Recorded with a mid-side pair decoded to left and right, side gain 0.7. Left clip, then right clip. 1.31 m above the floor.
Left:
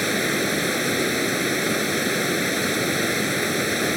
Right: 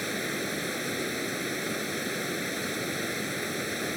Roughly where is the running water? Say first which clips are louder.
Left 9 dB; ahead left.